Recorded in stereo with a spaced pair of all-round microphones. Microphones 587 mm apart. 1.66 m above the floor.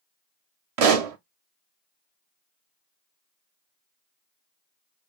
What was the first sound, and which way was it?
A pop, 70° right (ahead or behind).